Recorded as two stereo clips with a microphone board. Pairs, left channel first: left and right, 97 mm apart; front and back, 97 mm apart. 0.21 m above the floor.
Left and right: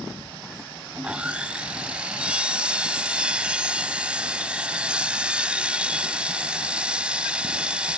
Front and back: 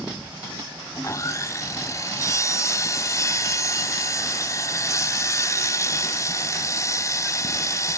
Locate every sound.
0.9 s sawing: 20° right, 0.7 m